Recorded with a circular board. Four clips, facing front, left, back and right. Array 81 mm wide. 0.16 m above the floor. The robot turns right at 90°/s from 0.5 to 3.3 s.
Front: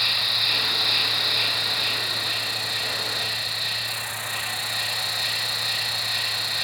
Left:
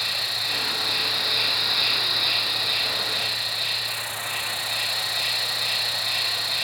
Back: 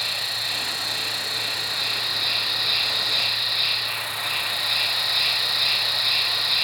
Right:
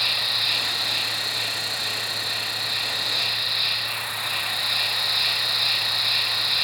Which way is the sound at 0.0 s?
35° right.